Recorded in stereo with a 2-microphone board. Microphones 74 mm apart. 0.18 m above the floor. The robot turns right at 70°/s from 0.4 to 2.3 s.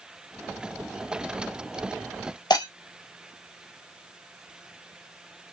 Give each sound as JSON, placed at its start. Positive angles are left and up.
{"t": 2.5, "sound": "breaking glass", "side_deg": 70, "distance_m": 1.4}